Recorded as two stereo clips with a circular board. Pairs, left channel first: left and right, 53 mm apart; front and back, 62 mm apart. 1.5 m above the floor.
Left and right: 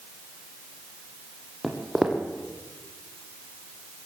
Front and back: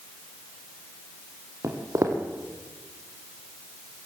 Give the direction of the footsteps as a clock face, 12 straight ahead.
6 o'clock.